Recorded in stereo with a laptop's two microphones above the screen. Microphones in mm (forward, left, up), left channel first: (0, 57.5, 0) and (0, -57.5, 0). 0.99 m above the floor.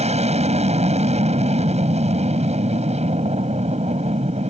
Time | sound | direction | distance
0.0 | an aircraft | 75° right (ahead or behind) | ?